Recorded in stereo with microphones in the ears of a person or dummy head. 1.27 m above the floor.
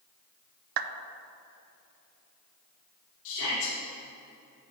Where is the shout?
70° left (ahead or behind), 1.9 m.